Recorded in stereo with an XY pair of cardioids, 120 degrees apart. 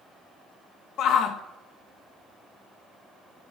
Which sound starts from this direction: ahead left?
A shout, at 1.0 s.